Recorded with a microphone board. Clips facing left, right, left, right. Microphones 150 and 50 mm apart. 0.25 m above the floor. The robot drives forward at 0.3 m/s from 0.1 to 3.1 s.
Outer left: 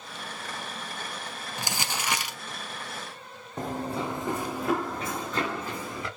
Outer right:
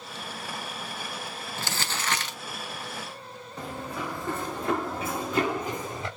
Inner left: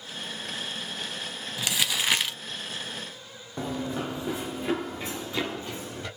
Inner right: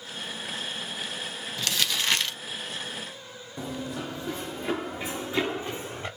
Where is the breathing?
No breathing in this recording.